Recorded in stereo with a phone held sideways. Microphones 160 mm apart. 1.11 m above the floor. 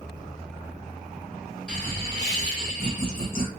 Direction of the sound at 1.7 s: 5° left (ahead or behind).